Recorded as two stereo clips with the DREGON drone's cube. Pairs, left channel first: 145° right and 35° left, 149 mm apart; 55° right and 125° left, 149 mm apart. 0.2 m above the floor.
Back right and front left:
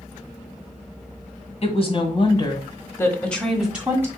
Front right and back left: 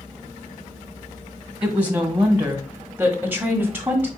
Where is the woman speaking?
160° right, 2.0 m; by 4.1 s 70° left, 1.4 m.